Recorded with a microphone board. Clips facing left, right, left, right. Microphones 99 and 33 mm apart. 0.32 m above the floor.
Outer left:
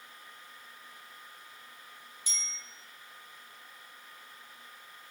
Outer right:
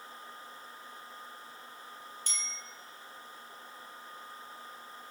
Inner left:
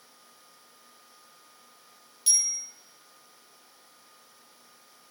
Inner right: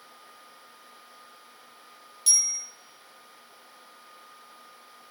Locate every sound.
2.3 s a bicycle bell: 10° left (ahead or behind), 7.5 m